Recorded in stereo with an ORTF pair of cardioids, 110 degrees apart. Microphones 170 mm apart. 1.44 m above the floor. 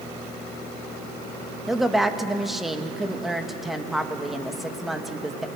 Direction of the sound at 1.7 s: Straight ahead.